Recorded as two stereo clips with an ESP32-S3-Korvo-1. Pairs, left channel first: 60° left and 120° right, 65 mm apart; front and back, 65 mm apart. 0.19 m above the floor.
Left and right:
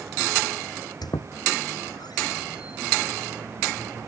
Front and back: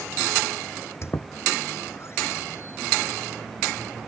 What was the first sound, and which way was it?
A squeak, 50° left.